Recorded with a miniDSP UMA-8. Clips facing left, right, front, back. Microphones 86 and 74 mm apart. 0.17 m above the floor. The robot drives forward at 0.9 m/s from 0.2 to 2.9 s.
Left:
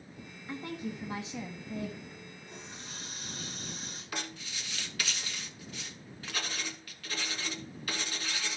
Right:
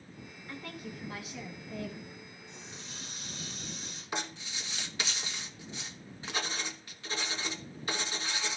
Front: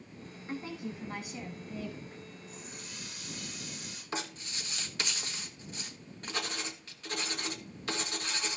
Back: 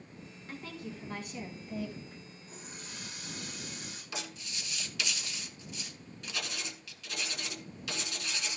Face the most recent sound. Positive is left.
turn(degrees=-30)